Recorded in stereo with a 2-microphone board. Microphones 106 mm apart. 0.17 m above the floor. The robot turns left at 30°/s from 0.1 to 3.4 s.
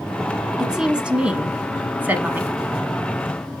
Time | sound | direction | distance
0.6 | a woman speaking | 5° right (ahead or behind) | 1.1 m